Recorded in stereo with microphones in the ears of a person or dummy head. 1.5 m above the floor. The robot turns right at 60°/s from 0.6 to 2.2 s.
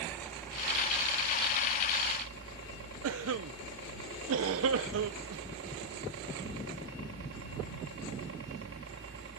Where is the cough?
85° right.